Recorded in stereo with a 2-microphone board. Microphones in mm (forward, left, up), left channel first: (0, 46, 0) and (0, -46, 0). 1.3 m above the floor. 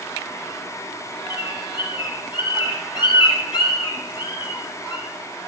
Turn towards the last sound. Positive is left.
turn(degrees=55)  # may be behind; listen again after turning